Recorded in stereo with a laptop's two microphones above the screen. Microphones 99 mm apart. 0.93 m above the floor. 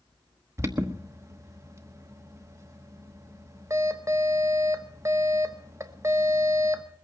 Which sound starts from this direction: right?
An alarm, at 0.6 s.